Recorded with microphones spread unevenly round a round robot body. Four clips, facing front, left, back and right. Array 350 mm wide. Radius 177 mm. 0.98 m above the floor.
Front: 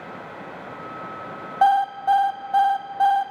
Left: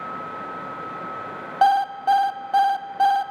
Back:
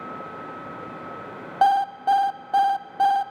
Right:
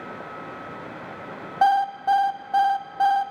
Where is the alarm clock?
175° left, 0.6 m.